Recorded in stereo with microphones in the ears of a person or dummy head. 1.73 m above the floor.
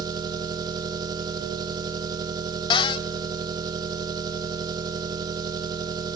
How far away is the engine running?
About 1.7 m.